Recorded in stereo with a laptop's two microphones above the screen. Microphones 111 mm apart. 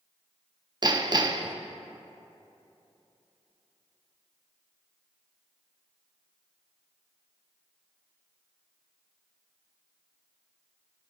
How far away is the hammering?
About 0.6 m.